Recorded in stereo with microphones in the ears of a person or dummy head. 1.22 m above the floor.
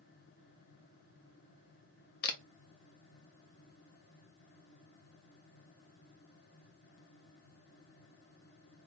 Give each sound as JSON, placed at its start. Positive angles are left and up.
{"t": 2.2, "sound": "a camera shutter", "side_deg": 65, "distance_m": 0.7}